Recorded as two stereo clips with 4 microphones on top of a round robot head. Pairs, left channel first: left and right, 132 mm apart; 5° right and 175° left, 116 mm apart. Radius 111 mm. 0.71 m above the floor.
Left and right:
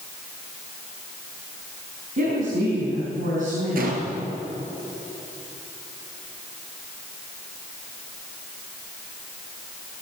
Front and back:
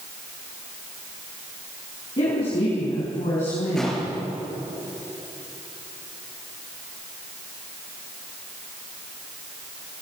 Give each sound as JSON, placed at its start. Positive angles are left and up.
{"t": 2.2, "sound": "a woman speaking", "azimuth_deg": -55, "distance_m": 5.5}
{"t": 3.8, "sound": "a gunshot", "azimuth_deg": -95, "distance_m": 4.0}